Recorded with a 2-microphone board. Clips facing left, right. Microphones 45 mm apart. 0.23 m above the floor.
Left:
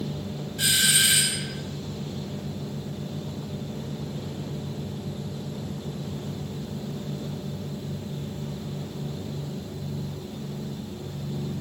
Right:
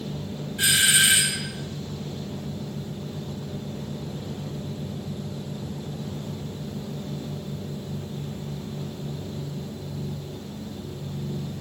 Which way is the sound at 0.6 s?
20° right (ahead or behind).